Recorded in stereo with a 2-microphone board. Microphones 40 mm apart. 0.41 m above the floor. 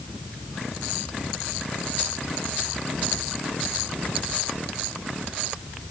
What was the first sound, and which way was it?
Only background noise.